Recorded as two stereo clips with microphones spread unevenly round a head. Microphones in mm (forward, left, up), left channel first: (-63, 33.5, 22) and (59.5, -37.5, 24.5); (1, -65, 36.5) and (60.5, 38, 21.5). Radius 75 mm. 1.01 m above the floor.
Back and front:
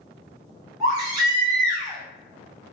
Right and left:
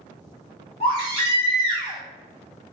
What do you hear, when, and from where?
0.8 s a baby crying: 90° right, 1.2 m